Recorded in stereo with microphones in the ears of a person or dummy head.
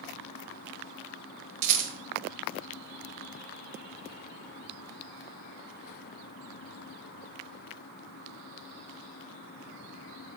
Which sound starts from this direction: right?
A rattle, at 1.6 s.